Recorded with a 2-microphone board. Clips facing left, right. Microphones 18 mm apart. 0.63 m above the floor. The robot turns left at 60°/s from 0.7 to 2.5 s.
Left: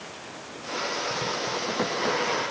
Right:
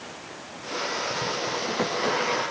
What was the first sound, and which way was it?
Only background noise.